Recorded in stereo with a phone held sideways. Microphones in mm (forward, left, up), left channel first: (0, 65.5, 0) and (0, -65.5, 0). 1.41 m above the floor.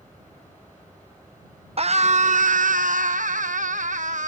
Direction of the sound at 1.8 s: 50° right (ahead or behind).